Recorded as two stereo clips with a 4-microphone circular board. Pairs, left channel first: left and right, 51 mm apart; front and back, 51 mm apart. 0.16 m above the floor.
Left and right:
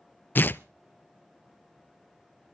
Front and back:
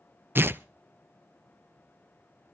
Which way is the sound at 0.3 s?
140° left.